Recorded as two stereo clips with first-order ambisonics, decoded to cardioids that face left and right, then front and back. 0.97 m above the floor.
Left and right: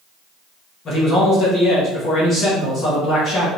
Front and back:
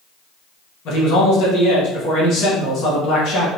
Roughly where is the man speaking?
Ahead left.